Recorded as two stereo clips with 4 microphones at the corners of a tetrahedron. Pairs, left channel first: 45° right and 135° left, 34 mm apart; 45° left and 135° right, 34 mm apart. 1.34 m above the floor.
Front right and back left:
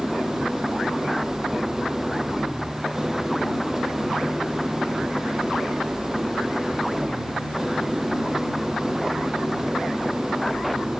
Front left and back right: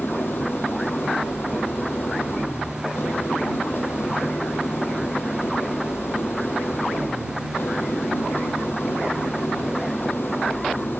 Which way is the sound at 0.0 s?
55° left.